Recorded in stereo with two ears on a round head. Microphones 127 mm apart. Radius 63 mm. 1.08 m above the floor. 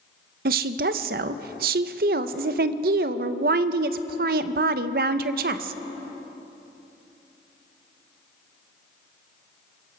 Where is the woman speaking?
70° right (ahead or behind), 0.6 m.